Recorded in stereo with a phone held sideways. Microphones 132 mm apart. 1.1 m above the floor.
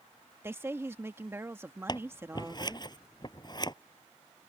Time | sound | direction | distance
0.4 | a woman speaking | 20° right (ahead or behind) | ?
1.9 | scissors | 35° left (ahead or behind) | ?